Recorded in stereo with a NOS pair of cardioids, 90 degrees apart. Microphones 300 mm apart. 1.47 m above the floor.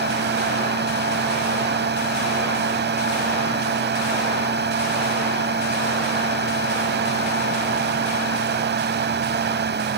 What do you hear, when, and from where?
0.0 s a fan: 35° right